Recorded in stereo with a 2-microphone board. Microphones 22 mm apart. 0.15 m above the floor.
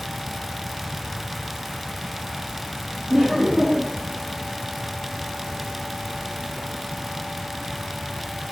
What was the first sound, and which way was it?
Laughter, 40° right (ahead or behind).